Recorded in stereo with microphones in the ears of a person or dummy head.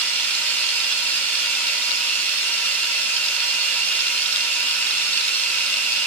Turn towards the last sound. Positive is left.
turn(degrees=20)  # may be behind; listen again after turning